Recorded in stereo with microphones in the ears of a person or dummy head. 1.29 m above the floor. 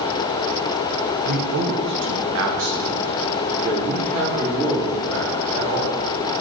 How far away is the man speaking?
About 0.7 m.